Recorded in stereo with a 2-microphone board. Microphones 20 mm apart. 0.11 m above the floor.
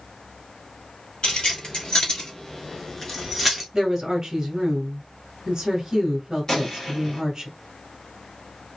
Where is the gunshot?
25° left (ahead or behind), 1.9 m.